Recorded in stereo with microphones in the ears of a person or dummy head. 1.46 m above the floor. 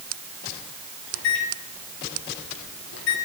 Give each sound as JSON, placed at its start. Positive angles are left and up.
{"t": 1.1, "sound": "a microwave", "side_deg": 70, "distance_m": 3.0}